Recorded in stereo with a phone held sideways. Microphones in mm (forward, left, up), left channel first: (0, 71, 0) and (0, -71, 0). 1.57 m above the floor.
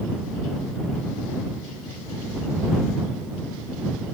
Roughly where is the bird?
I don't hear a bird.